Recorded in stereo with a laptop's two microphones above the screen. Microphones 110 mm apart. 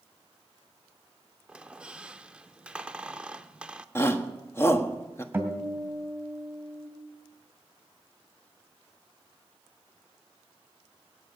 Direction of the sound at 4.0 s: 25° left (ahead or behind).